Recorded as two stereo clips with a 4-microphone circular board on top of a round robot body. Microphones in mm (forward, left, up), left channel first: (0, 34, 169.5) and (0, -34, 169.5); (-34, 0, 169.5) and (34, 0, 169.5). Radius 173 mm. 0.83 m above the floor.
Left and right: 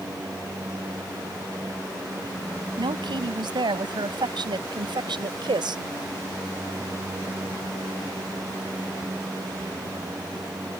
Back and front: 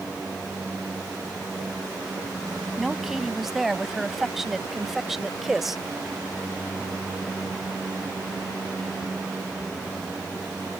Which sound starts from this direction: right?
A woman speaking, at 2.8 s.